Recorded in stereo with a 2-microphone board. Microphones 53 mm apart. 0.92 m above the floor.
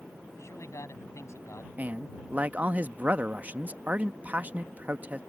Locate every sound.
0.3 s a man speaking: 60° left (ahead or behind)
1.8 s a man speaking: 30° right (ahead or behind)